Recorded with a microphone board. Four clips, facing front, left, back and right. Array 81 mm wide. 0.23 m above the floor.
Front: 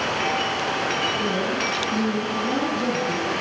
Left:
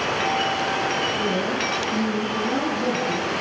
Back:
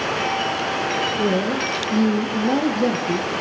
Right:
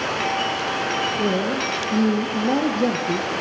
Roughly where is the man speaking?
Behind right.